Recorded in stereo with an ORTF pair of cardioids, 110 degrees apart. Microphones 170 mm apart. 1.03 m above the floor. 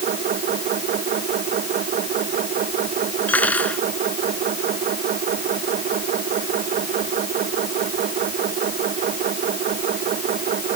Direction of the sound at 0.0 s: 60° right.